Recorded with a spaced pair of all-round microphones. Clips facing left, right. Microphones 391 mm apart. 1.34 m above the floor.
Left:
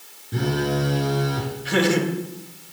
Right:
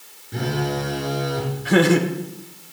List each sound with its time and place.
0.3 s a phone buzzing: 20° left (ahead or behind), 4 m
1.6 s laughter: 65° right (ahead or behind), 1.1 m